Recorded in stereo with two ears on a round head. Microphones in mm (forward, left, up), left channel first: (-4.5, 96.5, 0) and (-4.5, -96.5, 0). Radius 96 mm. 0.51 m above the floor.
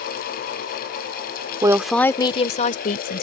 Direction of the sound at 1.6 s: 20° right (ahead or behind).